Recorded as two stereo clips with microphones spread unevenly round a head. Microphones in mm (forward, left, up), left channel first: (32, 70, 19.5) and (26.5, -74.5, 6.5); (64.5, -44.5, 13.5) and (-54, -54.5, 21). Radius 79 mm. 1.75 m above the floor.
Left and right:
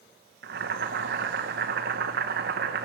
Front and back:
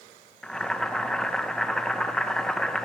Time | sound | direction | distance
0.4 | boiling | 80° right | 1.4 m